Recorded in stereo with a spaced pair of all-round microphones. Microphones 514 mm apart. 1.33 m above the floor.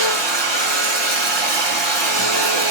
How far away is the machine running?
About 1.1 m.